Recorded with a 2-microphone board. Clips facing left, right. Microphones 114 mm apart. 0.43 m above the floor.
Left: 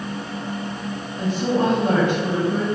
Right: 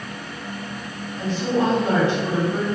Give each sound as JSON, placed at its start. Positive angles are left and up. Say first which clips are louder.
{"t": 1.2, "sound": "a woman speaking", "louder": "left 1 dB", "side_deg": 55, "distance_m": 1.8}